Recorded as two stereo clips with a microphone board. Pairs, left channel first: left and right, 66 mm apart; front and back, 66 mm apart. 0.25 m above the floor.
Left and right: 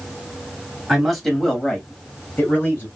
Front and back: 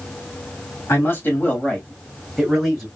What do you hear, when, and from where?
0.9 s a man speaking: 5° right, 1.3 m; by 2.9 s 115° left, 1.2 m